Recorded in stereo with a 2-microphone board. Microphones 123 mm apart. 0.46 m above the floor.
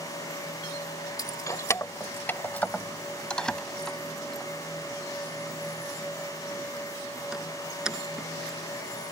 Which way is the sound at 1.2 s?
30° left (ahead or behind).